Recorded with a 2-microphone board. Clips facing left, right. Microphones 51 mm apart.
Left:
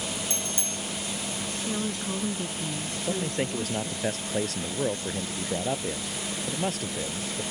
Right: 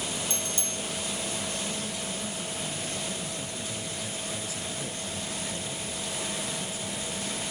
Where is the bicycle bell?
40° left (ahead or behind).